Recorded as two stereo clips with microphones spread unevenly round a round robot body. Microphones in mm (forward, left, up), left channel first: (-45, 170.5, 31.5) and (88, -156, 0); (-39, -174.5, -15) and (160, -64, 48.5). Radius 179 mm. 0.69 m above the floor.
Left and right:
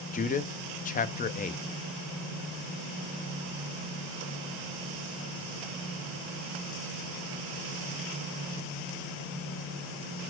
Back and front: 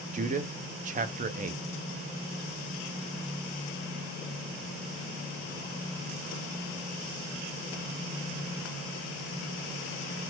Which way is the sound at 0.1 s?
70° left.